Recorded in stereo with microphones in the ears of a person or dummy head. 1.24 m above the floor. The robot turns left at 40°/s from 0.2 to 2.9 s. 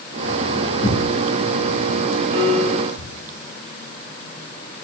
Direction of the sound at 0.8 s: 30° left (ahead or behind).